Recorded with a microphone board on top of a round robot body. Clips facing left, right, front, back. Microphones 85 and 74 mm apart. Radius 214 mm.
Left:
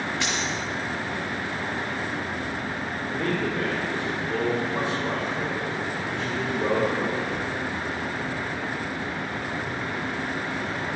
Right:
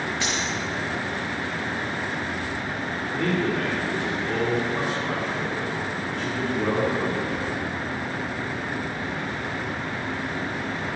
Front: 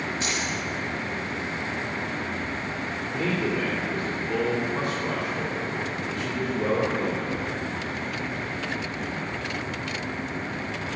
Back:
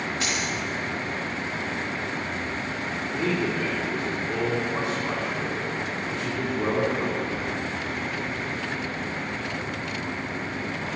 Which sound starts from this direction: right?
A man speaking, at 3.1 s.